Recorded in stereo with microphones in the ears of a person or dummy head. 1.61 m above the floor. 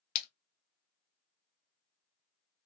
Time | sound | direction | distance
0.1 | a splash | 50° left (ahead or behind) | 0.7 m